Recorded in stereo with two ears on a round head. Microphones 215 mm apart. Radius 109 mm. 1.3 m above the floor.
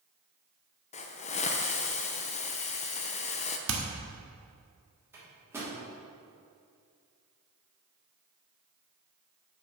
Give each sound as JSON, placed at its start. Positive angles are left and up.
{"t": 0.9, "sound": "a hiss", "side_deg": 25, "distance_m": 0.6}
{"t": 3.7, "sound": "hammering", "side_deg": -55, "distance_m": 1.3}
{"t": 5.1, "sound": "a microwave", "side_deg": -10, "distance_m": 2.5}